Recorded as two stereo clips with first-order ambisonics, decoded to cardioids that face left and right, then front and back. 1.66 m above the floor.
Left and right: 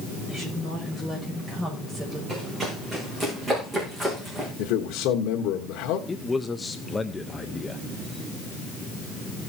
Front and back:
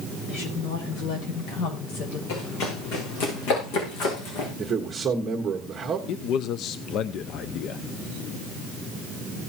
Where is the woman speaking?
Straight ahead, 7.5 m; by 2.2 s 5° right, 7 m.